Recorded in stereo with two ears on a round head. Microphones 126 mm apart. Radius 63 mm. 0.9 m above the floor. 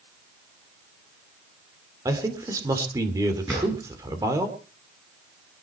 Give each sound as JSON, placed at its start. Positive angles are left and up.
{"t": 2.0, "sound": "a man speaking", "side_deg": -20, "distance_m": 3.0}
{"t": 3.5, "sound": "a drawer", "side_deg": 0, "distance_m": 9.5}